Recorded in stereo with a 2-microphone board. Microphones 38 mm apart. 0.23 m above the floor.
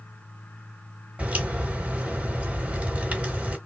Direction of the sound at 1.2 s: 35° right (ahead or behind).